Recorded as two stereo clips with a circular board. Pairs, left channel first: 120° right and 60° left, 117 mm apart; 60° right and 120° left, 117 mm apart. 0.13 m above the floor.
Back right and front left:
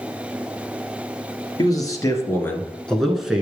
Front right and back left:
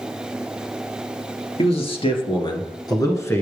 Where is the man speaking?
70° right, 2.5 m; by 3.4 s 10° right, 1.5 m.